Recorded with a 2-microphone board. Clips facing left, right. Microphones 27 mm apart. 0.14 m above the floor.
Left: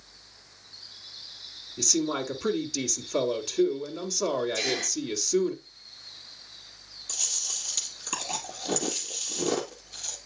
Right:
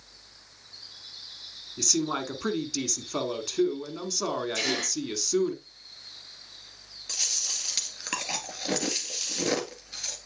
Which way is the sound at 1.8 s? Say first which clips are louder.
Left 1 dB; 10° right (ahead or behind).